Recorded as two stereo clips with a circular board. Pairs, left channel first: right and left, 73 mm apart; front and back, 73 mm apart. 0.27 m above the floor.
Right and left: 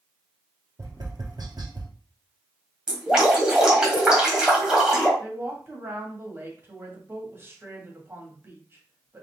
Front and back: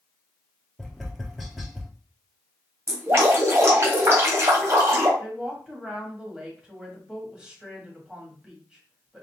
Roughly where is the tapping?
Left.